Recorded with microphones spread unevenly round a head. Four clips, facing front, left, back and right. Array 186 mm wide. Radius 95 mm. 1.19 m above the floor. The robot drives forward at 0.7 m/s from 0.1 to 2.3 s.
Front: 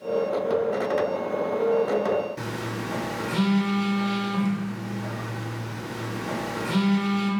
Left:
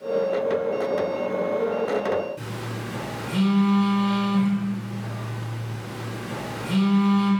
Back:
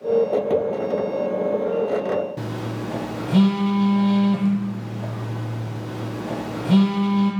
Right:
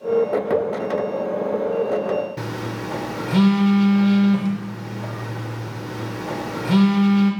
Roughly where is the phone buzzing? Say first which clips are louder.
Right 5 dB, back 2 dB; behind right.